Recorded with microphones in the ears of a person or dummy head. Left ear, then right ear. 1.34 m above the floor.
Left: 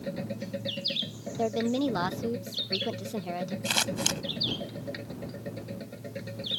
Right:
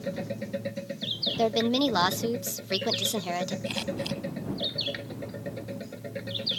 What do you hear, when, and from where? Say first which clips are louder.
0.0 s a machine running: right 2 dB; 15° right (ahead or behind)
1.4 s a woman speaking: right 2 dB; 35° right (ahead or behind)
3.6 s scissors: left 4 dB; 60° left (ahead or behind)